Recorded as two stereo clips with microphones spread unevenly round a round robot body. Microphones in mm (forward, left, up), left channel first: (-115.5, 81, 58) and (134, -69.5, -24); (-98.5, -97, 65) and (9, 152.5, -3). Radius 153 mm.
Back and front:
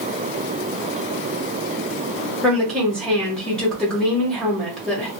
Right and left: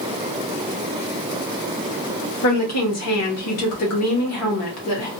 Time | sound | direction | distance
2.4 | a woman speaking | 110° right | 1.3 m